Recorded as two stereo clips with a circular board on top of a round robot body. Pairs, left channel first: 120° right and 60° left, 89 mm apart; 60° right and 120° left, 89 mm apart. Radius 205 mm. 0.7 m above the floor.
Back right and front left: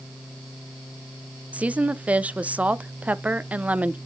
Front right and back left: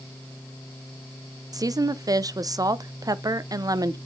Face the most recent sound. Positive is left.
turn(degrees=125)